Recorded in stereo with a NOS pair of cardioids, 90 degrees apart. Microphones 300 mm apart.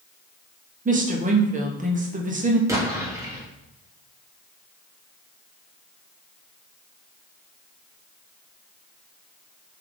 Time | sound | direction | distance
0.8 | a woman speaking | 25° right | 1.0 m
2.7 | an explosion | 10° right | 1.3 m